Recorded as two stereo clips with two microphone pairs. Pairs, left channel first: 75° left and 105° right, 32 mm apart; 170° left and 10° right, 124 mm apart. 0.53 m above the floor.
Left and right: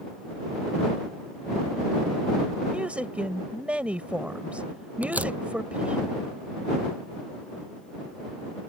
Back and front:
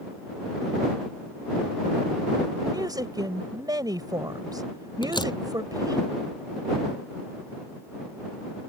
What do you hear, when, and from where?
2.7 s a woman speaking: 65° right
5.0 s a door slam: 135° right